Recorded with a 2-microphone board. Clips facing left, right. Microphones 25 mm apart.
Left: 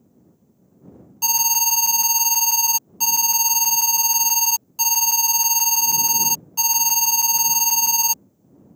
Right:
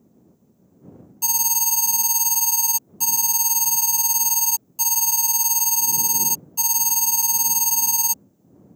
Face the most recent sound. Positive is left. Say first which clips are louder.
# left 4 dB
turn(degrees=30)  # may be behind; listen again after turning